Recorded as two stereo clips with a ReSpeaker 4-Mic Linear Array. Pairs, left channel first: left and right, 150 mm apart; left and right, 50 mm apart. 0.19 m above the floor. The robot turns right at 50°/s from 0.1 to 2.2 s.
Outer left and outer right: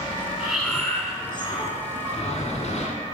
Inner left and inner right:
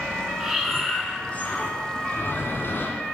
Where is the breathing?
5° right, 1.7 m; by 3.0 s 85° left, 1.7 m.